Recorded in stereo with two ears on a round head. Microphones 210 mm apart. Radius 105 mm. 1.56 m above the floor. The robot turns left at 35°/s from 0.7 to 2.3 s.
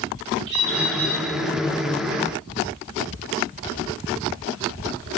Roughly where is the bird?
Right.